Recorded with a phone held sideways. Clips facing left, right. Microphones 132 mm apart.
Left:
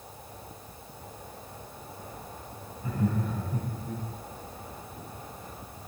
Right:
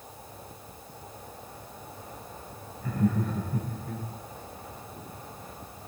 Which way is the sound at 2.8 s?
20° left (ahead or behind).